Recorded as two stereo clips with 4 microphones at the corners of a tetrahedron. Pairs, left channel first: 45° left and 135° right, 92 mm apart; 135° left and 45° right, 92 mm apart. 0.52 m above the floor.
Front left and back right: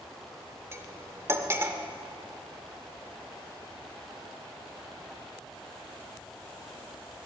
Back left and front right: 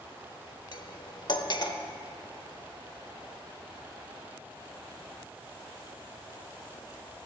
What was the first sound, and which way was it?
Cutlery clinking, 165° left.